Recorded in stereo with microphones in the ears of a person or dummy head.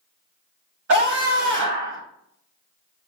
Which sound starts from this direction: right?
A scream, at 0.9 s.